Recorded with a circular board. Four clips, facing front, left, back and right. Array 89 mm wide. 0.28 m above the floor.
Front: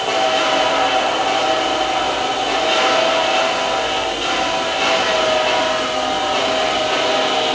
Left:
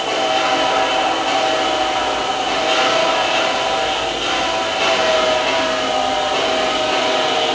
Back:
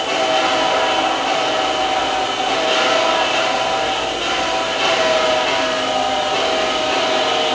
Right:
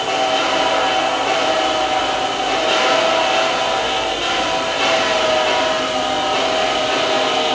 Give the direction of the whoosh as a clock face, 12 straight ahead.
No whoosh in this recording.